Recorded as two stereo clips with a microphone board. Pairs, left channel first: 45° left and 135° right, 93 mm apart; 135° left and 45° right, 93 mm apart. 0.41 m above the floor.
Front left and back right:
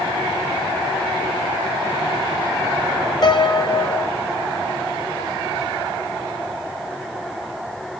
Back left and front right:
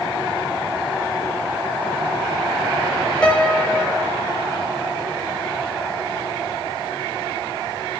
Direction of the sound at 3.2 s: 65° left.